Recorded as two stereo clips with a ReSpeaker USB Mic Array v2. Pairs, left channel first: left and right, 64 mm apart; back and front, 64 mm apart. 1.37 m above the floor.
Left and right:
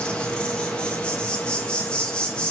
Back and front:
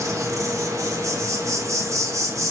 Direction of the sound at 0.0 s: 20° left.